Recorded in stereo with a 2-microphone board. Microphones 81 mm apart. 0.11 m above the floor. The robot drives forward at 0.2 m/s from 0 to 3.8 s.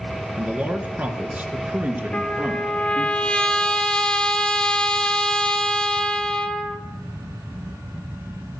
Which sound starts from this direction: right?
A man speaking, at 0.4 s.